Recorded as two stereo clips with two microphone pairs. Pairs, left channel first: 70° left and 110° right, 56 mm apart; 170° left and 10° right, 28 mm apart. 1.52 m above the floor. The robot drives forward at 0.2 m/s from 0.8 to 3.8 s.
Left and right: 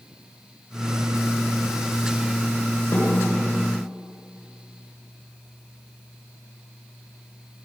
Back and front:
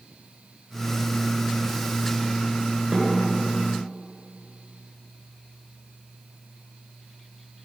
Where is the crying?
I don't hear crying.